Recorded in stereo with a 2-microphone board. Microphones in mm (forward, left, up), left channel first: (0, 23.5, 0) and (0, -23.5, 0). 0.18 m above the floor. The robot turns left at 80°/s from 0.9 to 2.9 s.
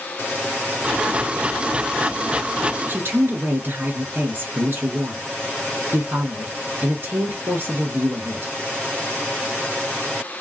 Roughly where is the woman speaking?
Right.